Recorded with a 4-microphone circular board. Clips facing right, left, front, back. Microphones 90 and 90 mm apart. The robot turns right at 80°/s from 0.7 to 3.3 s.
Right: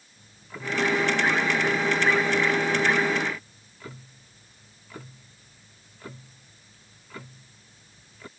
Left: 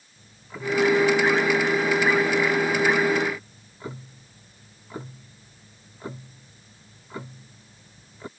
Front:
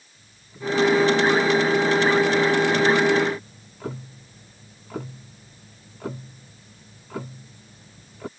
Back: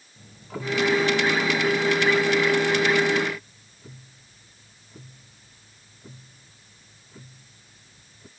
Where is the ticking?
175° left; by 8.3 s 20° left.